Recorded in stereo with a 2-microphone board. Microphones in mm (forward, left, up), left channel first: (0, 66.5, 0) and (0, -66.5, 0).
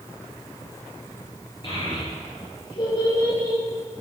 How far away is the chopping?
No chopping in this recording.